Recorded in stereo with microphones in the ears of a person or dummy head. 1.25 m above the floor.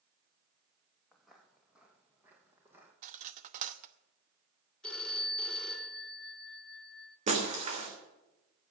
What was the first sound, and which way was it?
Footsteps, 5° left (ahead or behind).